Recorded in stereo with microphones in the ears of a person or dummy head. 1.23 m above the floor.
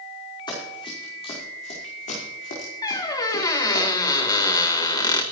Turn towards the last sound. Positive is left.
turn(degrees=20)  # may be behind; listen again after turning